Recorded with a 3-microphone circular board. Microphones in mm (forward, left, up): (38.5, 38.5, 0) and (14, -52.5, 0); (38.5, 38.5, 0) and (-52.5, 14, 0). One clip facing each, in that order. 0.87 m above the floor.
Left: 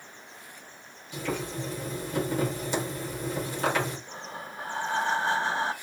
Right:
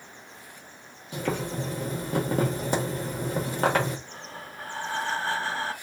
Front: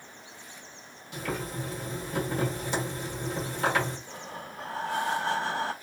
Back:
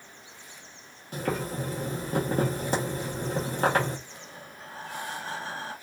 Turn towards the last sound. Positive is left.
turn(degrees=5)